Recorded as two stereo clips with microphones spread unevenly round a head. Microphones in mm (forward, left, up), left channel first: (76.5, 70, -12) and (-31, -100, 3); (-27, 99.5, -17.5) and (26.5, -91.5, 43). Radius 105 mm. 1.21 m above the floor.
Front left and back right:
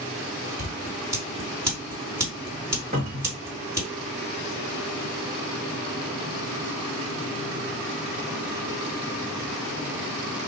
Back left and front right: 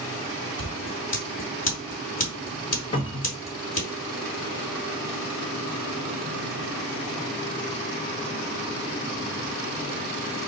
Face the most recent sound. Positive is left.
turn(degrees=175)